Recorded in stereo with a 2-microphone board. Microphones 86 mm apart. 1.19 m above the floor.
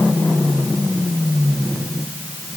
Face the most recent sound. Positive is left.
No sound to turn to.